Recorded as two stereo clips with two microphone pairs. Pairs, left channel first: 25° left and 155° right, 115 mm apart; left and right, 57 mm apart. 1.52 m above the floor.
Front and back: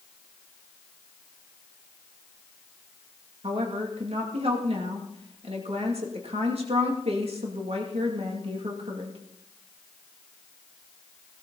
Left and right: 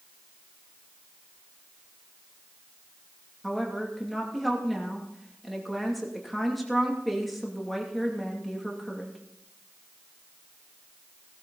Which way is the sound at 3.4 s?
Straight behind.